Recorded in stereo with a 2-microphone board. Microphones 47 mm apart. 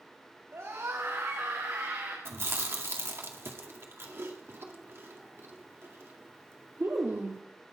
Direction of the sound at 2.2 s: 55° right (ahead or behind).